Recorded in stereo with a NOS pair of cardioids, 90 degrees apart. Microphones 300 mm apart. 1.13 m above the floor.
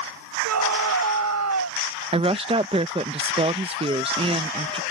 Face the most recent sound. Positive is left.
turn(degrees=-20)